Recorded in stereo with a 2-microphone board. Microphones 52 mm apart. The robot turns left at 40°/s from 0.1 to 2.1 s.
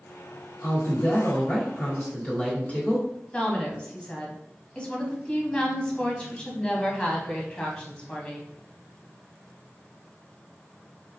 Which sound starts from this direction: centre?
A woman speaking, at 3.3 s.